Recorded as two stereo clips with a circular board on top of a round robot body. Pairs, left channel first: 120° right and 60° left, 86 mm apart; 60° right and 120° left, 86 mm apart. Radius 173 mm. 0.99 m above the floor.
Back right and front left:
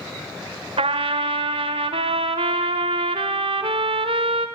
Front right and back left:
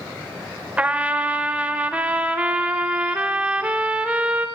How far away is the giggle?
I don't hear a giggle.